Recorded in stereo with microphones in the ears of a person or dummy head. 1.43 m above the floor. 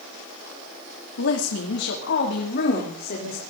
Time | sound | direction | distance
1.2 | a woman speaking | 85° left | 2.5 m